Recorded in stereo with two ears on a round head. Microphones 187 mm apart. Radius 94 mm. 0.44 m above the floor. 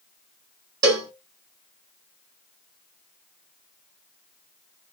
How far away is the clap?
No clap in this recording.